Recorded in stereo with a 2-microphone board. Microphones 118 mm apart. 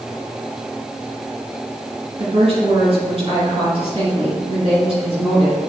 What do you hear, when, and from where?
2.2 s a woman speaking: 50° right (ahead or behind), 2.5 m